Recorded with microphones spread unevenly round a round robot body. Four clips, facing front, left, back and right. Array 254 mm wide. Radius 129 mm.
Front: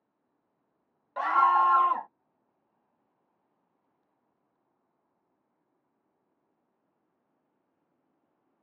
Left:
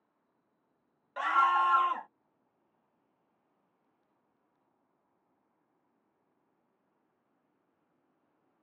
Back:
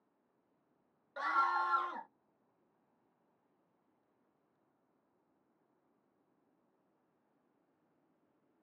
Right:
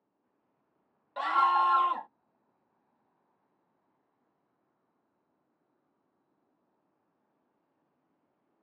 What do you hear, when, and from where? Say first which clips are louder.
1.2 s a scream: right 1 dB, front 11 dB; 35° right